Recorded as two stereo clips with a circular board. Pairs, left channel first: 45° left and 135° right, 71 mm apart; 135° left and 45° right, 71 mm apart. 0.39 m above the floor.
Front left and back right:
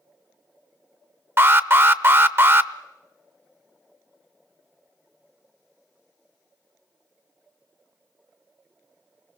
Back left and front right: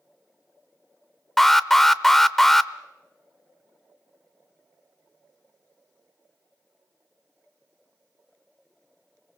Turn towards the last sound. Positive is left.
turn(degrees=-145)